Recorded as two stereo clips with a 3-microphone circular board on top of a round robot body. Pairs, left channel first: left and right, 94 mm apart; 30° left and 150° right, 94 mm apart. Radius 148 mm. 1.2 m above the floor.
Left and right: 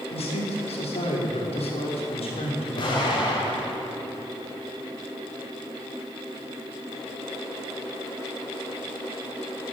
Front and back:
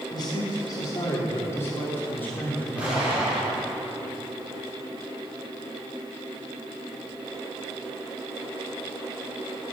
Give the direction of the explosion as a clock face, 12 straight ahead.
8 o'clock.